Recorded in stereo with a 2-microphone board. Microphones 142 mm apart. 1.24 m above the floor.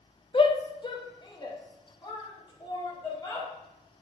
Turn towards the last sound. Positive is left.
turn(degrees=30)  # may be behind; listen again after turning